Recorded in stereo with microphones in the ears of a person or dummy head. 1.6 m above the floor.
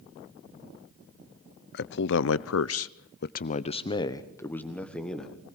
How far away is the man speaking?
About 1.0 m.